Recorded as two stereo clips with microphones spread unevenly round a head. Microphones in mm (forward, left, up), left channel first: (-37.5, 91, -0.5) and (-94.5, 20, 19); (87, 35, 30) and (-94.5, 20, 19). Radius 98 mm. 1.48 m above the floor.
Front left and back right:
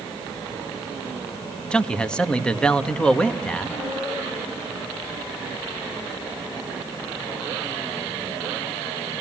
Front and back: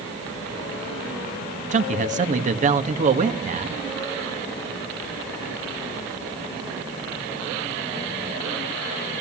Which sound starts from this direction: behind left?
A man speaking, at 1.7 s.